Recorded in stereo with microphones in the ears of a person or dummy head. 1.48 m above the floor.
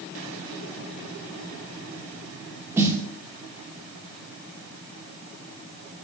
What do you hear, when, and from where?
2.8 s a snare drum: 10° right (ahead or behind), 1.4 m